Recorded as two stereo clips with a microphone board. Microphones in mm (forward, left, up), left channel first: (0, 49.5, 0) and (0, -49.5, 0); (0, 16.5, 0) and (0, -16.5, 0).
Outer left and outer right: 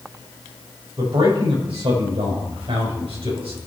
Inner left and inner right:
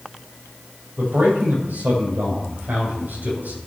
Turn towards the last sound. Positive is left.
turn(degrees=-75)  # may be behind; listen again after turning